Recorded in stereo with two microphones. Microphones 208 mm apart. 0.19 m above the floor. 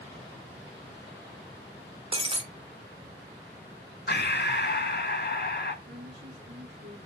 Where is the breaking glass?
25° right (ahead or behind), 0.8 m.